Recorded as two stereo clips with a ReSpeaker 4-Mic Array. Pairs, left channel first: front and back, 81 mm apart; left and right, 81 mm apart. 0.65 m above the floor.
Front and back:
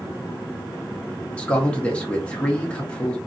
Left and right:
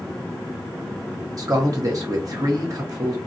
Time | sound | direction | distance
1.4 | a man speaking | 70° right | 1.1 m